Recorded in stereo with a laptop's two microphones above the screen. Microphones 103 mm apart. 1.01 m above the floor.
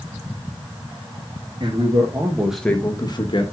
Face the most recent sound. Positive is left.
turn(degrees=55)  # may be behind; listen again after turning